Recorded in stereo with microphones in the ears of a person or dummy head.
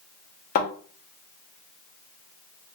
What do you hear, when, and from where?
0.6 s a thud: 50° left (ahead or behind), 0.7 m